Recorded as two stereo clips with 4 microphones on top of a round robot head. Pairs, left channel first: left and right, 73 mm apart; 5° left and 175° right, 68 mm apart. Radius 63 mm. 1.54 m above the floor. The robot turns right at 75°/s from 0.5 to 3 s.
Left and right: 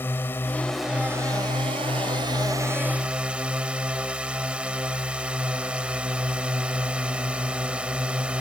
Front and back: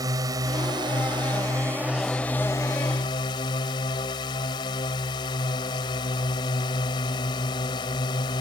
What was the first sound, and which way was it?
A drone, 160° left.